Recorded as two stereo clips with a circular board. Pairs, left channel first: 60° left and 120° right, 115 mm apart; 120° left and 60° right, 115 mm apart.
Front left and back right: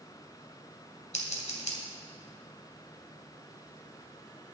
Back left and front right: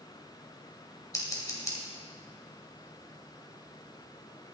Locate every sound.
1.1 s scissors: 60° left, 2.5 m